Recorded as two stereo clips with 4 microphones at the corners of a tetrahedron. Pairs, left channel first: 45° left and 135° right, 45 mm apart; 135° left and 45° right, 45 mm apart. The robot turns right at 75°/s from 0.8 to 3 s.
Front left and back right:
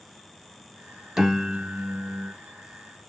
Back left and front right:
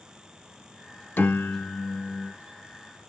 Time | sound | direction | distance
1.2 | a piano | 145° left | 0.5 m